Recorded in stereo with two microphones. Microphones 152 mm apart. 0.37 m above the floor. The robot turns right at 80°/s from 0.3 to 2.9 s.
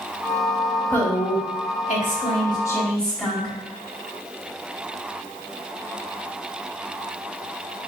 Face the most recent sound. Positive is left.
turn(degrees=175)